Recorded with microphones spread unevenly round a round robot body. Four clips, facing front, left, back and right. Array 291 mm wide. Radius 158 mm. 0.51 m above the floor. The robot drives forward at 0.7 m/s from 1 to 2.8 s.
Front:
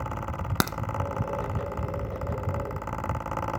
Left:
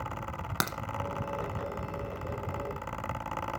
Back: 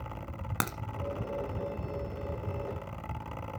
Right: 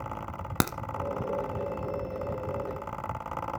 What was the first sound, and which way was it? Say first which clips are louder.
A crack: right 5 dB, front 6 dB; 45° right.